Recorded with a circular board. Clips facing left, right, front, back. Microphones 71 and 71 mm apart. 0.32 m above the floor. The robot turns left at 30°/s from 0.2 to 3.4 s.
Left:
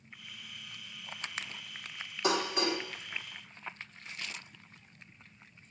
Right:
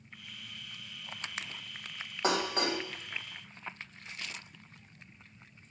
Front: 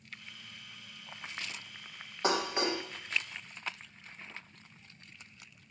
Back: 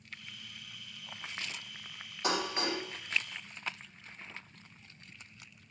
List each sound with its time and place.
2.2 s dishes clattering: 45° right, 1.1 m; by 2.8 s 65° right, 1.1 m